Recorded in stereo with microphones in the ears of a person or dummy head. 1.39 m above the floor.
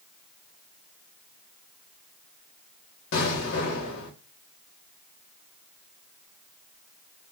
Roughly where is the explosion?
Left.